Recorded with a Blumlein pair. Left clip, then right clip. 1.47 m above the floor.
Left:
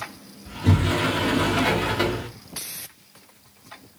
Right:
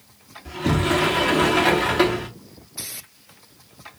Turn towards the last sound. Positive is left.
turn(degrees=-10)